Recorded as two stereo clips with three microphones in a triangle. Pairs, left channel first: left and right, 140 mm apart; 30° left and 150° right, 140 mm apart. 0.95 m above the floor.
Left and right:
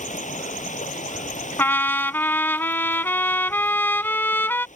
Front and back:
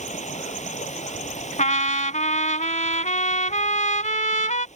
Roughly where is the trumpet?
Ahead.